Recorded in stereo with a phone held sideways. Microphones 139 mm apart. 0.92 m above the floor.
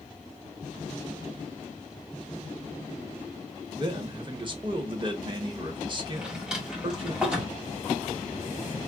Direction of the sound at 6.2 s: 5° right (ahead or behind).